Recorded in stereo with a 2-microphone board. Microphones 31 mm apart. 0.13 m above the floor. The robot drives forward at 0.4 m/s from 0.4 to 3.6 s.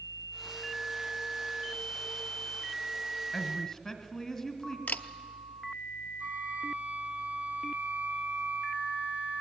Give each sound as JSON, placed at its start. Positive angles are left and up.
{"t": 3.3, "sound": "a woman speaking", "side_deg": 20, "distance_m": 1.7}
{"t": 4.9, "sound": "a camera shutter", "side_deg": 65, "distance_m": 0.7}
{"t": 6.2, "sound": "a flute", "side_deg": -60, "distance_m": 0.6}